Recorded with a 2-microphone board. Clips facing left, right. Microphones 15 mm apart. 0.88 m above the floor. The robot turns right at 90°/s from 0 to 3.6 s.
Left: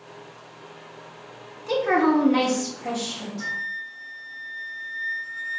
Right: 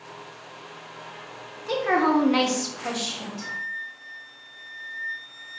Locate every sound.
1.7 s a woman speaking: 170° right, 0.8 m; by 3.5 s 10° right, 0.8 m
3.4 s a flute: 65° left (ahead or behind), 0.7 m; by 5.6 s 50° left (ahead or behind), 0.7 m